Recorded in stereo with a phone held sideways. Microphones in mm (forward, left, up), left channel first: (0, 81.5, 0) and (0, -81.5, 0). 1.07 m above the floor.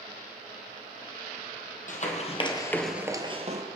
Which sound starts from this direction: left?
Running footsteps, at 1.9 s.